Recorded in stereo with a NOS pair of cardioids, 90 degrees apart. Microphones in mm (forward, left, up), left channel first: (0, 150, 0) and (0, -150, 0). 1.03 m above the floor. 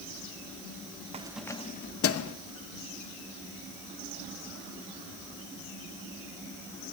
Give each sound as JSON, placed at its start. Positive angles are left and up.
{"t": 1.1, "sound": "keys jangling", "azimuth_deg": -20, "distance_m": 0.6}